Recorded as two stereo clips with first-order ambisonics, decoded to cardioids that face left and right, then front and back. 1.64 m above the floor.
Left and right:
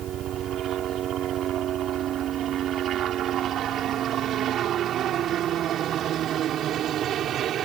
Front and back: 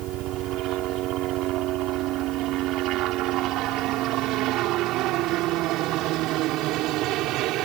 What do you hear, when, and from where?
0.0 s a helicopter: 140° right; by 7.7 s 145° right